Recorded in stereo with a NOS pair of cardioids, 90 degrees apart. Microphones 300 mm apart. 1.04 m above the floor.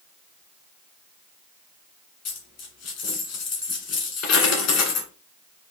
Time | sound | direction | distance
2.2 | a dropped coin | 55° left | 1.7 m